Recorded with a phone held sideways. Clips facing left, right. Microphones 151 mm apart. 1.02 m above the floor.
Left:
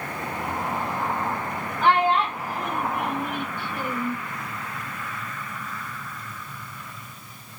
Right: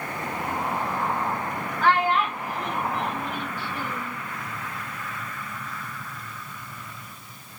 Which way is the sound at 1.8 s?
20° left (ahead or behind).